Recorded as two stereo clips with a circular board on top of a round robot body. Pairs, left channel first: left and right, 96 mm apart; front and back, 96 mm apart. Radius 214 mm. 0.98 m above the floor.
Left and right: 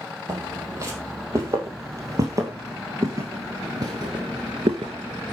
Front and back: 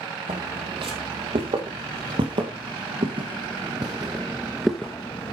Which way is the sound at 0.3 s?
150° right.